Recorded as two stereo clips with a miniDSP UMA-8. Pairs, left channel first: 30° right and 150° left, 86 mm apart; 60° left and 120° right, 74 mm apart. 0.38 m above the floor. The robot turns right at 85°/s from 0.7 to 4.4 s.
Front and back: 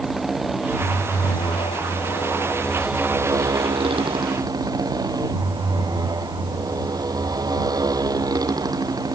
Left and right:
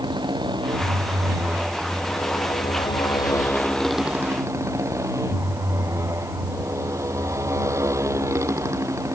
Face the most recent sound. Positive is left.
turn(degrees=-165)